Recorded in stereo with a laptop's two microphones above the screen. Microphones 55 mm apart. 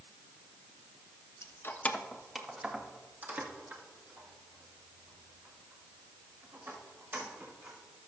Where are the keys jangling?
60° left (ahead or behind), 0.5 m; by 7.8 s 50° right (ahead or behind), 4 m.